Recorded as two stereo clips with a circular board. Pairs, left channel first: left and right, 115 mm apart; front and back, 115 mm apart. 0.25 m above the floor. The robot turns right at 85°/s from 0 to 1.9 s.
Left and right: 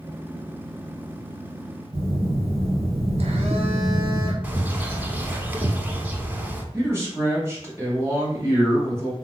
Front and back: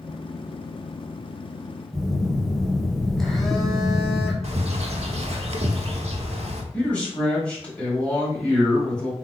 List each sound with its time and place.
1.9 s a phone buzzing: 85° right, 0.7 m
4.4 s a bird: 165° right, 0.5 m
6.7 s a man speaking: 65° right, 1.3 m